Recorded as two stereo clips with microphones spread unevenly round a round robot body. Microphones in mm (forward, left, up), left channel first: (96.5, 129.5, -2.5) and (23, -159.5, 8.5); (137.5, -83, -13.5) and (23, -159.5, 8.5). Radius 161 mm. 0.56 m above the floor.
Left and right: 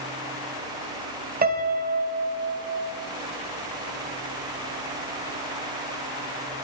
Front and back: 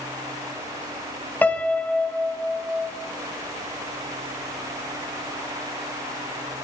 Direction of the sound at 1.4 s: 45° right.